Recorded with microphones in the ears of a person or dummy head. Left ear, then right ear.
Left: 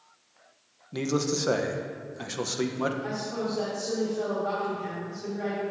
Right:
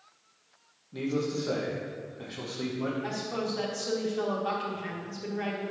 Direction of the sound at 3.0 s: 50° right (ahead or behind).